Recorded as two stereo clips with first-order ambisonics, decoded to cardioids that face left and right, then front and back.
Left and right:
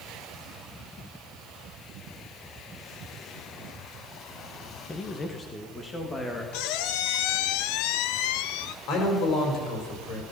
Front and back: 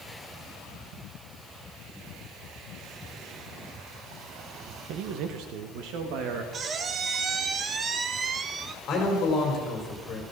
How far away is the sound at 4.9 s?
About 1.0 m.